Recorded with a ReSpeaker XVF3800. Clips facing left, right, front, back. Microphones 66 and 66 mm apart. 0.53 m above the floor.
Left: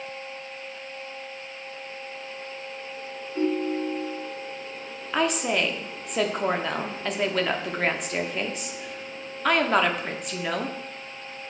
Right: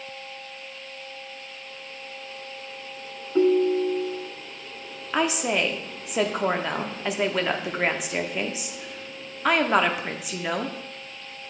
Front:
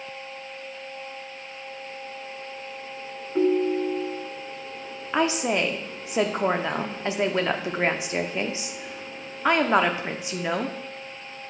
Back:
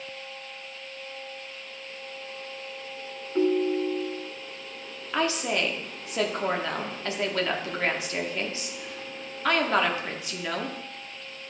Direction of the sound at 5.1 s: 20° right.